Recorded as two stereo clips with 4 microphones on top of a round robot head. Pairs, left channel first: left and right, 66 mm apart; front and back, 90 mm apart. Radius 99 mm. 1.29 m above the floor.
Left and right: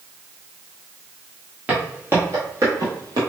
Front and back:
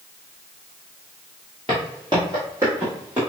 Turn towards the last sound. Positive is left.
turn(degrees=-105)